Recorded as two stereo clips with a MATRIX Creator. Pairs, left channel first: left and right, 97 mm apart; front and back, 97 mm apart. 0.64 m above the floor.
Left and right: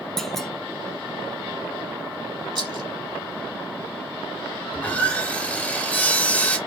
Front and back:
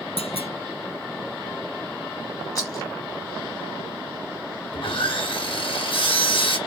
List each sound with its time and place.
0.2 s a clunk: 5° left, 0.8 m
2.5 s a rattle: 55° right, 2.5 m
4.7 s sawing: 20° left, 1.7 m